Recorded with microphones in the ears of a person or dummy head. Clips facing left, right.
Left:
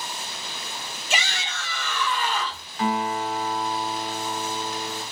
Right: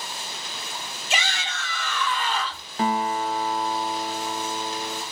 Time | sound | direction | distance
1.1 | a shout | 80° left | 2 m
2.8 | a guitar | 30° right (ahead or behind) | 0.8 m